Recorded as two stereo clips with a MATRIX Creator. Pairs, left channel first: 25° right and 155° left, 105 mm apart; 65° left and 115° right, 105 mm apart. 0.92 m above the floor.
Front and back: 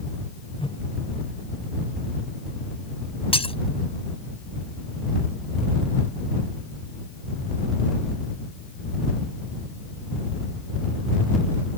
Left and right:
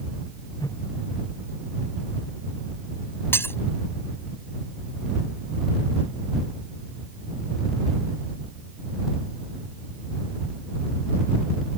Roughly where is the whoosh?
Ahead.